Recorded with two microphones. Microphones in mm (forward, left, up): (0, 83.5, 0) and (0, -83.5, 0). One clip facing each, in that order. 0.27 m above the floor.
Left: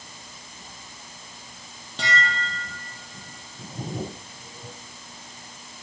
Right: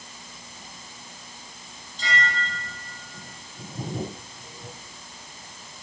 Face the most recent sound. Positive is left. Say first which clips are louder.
# left 1 dB
turn(degrees=70)  # may be behind; listen again after turning